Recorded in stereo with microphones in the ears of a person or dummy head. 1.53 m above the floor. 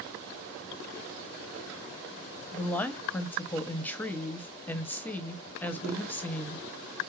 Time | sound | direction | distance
2.5 | a woman speaking | 10° left (ahead or behind) | 0.7 m